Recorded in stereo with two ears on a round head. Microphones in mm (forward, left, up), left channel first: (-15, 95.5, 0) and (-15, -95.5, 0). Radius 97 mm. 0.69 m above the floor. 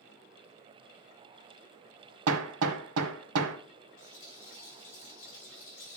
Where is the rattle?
60° left (ahead or behind), 6 m.